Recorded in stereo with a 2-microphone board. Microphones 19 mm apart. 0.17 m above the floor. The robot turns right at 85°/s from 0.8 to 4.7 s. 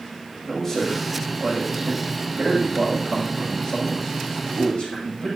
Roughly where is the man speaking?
Behind left.